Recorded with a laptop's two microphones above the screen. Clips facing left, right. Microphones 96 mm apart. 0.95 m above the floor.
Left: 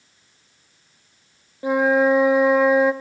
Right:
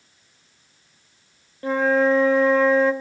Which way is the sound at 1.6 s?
15° left (ahead or behind).